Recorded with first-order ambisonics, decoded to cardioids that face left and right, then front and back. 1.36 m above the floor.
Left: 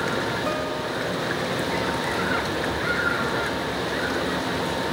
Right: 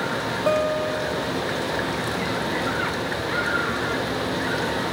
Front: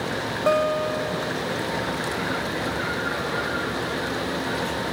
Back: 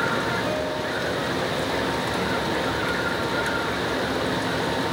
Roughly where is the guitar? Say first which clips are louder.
Right 5 dB, front 5 dB; ahead right.